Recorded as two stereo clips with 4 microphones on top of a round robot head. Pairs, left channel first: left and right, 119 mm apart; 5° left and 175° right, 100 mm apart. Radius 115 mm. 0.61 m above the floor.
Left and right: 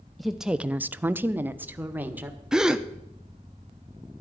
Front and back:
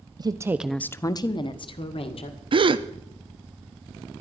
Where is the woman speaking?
Straight behind, 0.8 m; by 2.4 s 15° right, 2.0 m.